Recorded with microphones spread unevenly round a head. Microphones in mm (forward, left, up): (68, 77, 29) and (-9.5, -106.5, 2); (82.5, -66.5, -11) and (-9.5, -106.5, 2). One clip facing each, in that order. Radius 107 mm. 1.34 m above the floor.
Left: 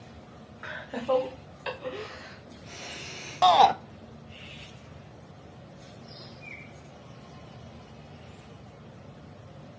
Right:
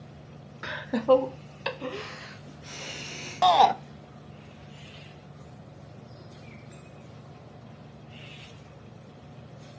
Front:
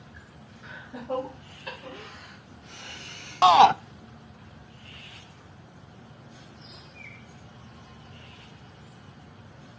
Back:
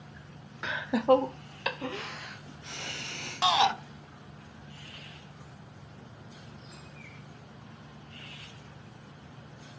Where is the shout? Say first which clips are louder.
Even, front 10 dB; 20° right, 0.5 m.